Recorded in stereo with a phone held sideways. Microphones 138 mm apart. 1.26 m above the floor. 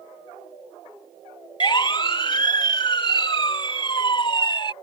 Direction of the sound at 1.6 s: 35° left (ahead or behind).